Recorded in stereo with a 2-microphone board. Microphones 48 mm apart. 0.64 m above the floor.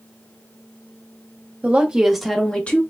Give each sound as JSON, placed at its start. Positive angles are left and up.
{"t": 1.6, "sound": "a woman speaking", "side_deg": -30, "distance_m": 0.9}